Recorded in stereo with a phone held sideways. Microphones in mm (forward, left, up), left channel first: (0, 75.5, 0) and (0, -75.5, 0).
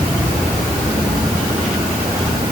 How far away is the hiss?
No hiss in this recording.